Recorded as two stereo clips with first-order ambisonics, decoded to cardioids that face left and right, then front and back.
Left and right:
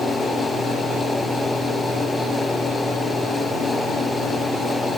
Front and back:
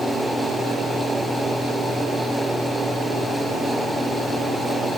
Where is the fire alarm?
I don't hear a fire alarm.